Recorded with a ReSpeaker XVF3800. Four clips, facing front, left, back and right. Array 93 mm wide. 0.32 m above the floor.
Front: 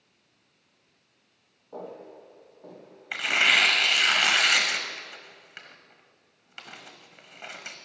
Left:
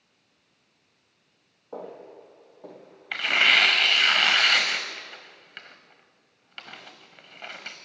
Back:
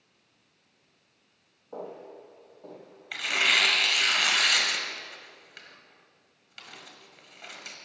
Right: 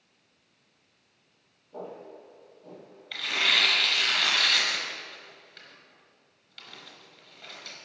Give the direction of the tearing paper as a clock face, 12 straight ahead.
10 o'clock.